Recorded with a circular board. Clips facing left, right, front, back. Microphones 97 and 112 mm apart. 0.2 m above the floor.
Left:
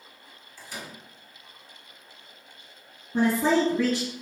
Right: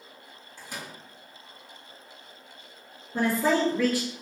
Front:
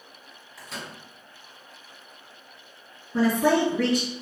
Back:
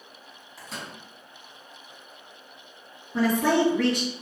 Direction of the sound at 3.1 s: 65° left.